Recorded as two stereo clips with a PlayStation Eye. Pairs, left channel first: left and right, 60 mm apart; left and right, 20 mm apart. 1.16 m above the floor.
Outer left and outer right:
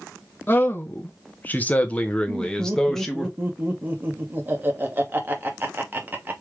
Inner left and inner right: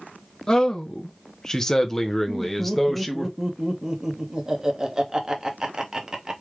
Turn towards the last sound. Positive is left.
turn(degrees=-35)  # may be behind; listen again after turning